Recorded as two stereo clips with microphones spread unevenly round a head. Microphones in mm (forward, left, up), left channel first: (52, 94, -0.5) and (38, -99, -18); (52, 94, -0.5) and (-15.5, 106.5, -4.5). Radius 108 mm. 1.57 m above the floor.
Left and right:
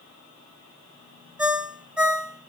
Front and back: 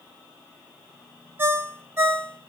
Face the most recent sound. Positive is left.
turn(degrees=175)